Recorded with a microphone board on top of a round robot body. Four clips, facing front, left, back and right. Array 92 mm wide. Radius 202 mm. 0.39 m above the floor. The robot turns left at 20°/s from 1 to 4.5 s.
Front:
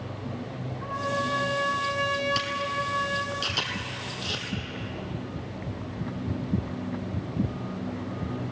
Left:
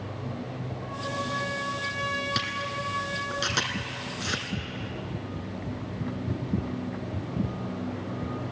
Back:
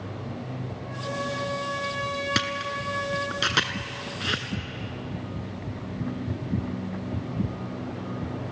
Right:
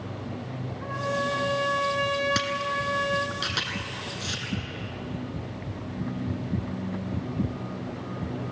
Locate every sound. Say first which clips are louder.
0.8 s a trumpet: right 5 dB, front 4 dB; 50° right, 3.5 m; by 3.4 s 95° right, 3.5 m
2.4 s a camera shutter: right 4 dB, even; 170° right, 1.4 m; by 4.5 s 150° left, 1.4 m